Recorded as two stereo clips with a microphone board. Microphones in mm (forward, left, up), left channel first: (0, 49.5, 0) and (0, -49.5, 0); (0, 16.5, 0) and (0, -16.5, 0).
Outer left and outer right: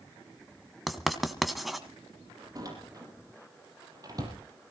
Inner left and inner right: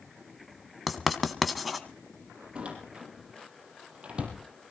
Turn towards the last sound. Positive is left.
turn(degrees=-40)  # may be behind; listen again after turning